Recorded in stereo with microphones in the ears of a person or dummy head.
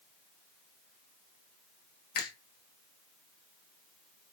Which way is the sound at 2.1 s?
55° left (ahead or behind).